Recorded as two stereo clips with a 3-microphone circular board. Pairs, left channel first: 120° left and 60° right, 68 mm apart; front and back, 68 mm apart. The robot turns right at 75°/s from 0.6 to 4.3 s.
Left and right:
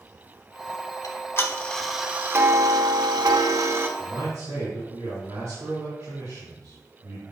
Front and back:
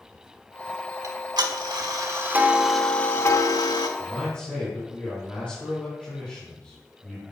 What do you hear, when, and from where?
1.0 s ticking: 145° left, 0.9 m; by 3.9 s straight ahead, 0.9 m
4.0 s a man speaking: 95° right, 3.5 m; by 7.2 s 70° right, 3.5 m